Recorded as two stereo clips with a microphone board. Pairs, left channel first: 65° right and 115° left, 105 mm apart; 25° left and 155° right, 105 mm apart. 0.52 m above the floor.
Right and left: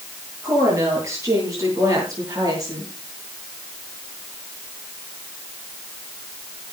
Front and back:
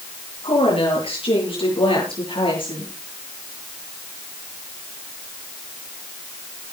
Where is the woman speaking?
50° left, 8 m; by 2.9 s 60° left, 8 m.